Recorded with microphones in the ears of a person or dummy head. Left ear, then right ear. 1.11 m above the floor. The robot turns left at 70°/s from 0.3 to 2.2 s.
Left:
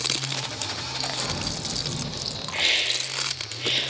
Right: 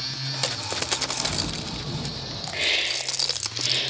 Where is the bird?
110° left, 1.6 m; by 2.4 s 40° left, 1.6 m.